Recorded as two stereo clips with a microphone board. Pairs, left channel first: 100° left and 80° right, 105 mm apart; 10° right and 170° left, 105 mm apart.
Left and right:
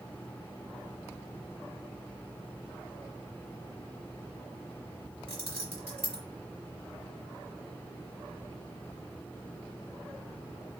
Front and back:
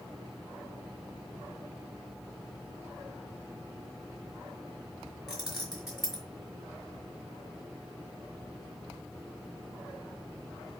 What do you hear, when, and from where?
5.3 s keys jangling: 105° right, 1.2 m